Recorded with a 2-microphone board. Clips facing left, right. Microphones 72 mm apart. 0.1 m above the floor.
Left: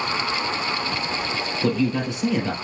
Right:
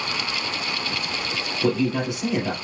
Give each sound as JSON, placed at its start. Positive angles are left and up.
{"t": 1.6, "sound": "a man speaking", "side_deg": -15, "distance_m": 3.0}